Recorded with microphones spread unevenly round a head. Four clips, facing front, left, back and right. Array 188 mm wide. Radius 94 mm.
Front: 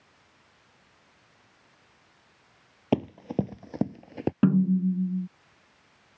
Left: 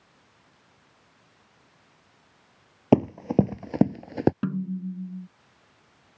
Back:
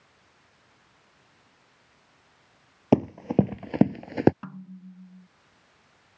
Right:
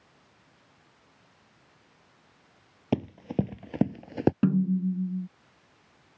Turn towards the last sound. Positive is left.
turn(degrees=-25)